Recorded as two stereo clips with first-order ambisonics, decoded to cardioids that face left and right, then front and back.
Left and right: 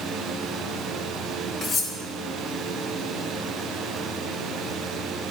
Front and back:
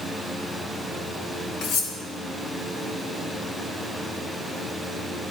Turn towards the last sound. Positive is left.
turn(degrees=30)